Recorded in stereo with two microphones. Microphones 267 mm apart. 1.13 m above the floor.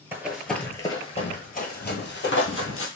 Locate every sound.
0.1 s running footsteps: 10° right (ahead or behind), 1.2 m; by 2.9 s 55° left (ahead or behind), 1.8 m